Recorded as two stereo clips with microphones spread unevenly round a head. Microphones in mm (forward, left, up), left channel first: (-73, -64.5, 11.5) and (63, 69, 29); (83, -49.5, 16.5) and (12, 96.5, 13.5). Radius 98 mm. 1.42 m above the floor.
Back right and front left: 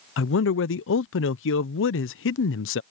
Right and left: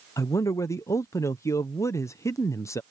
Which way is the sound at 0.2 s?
140° right.